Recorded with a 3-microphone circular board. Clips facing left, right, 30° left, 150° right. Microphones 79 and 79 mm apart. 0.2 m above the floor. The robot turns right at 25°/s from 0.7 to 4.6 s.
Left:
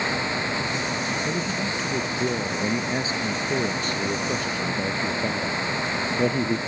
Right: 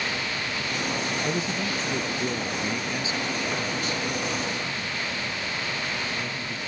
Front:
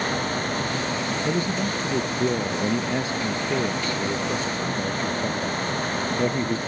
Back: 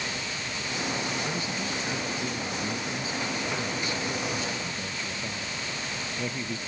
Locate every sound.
1.2 s a man speaking: 10° right; by 6.6 s 75° left